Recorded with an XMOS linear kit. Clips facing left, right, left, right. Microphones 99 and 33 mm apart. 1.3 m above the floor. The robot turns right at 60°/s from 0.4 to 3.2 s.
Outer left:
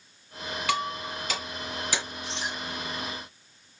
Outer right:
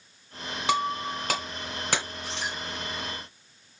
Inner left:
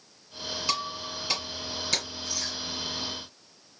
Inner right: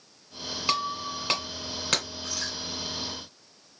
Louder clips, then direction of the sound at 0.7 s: Outer right 4 dB, inner right 5 dB; 25° right (ahead or behind).